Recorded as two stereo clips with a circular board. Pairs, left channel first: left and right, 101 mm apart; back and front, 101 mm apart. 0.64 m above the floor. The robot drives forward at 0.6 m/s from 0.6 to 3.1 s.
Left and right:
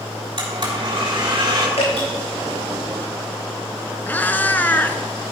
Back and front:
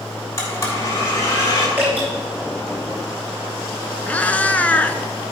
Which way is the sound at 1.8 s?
75° left.